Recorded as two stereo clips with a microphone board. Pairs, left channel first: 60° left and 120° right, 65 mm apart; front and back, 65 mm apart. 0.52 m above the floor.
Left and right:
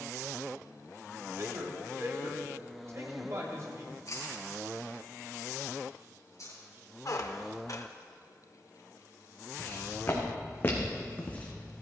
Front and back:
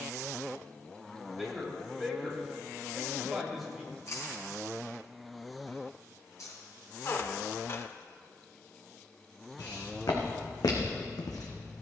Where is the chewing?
30° left, 4 m.